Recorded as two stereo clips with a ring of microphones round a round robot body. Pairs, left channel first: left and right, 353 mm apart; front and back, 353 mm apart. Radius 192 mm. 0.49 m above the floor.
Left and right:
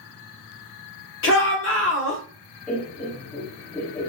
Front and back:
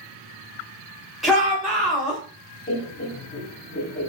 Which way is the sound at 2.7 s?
10° left.